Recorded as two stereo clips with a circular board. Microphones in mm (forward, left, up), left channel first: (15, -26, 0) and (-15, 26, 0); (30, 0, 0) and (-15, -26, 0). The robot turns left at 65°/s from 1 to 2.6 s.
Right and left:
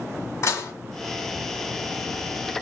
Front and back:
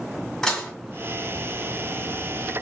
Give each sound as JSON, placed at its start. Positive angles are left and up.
{"t": 0.4, "sound": "dishes clattering", "azimuth_deg": -50, "distance_m": 1.4}